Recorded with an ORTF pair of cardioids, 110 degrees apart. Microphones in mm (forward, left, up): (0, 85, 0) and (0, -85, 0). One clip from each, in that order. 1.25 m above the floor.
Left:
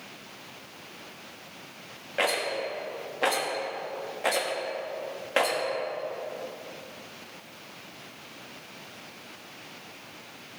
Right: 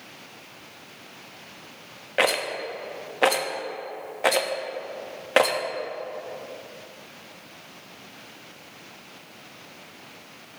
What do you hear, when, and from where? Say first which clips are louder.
2.2 s a rattle: right 4 dB; 35° right, 1.2 m